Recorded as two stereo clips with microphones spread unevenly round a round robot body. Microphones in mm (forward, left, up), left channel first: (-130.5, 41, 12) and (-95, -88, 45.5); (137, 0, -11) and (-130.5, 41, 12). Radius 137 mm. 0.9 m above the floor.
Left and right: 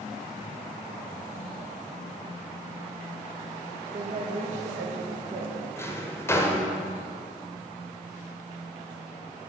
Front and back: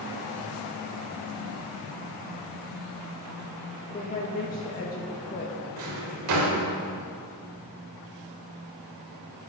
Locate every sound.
3.9 s a woman speaking: 45° right, 0.8 m
5.8 s a drawer: straight behind, 1.2 m